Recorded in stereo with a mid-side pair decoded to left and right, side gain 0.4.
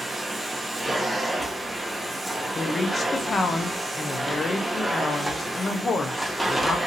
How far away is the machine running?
About 0.7 m.